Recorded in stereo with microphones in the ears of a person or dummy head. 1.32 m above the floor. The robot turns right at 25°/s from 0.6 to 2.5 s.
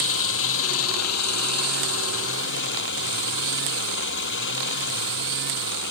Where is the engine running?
75° left; by 5.9 s 120° left.